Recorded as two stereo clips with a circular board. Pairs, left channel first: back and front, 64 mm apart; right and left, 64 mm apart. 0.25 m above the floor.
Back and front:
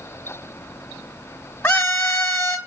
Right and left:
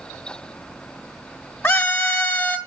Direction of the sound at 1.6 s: 125° right.